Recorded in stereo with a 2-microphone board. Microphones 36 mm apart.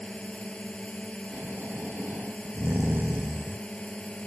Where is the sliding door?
I don't hear a sliding door.